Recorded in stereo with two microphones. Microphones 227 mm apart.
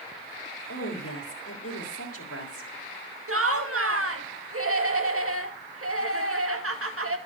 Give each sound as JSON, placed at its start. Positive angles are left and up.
{"t": 0.7, "sound": "a woman speaking", "side_deg": 85, "distance_m": 4.0}
{"t": 3.3, "sound": "laughter", "side_deg": -75, "distance_m": 2.0}